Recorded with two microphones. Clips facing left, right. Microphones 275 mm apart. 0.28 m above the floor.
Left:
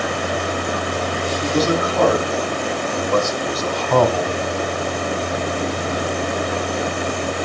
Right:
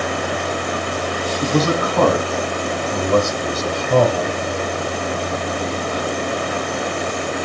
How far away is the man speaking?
About 2.5 m.